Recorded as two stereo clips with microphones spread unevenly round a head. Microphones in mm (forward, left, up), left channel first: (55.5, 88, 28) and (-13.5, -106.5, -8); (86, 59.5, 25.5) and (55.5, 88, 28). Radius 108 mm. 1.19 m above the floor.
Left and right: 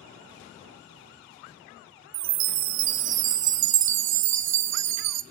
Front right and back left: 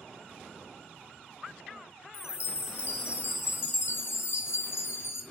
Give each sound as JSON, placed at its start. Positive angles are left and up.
{"t": 2.1, "sound": "a chime", "azimuth_deg": -85, "distance_m": 0.5}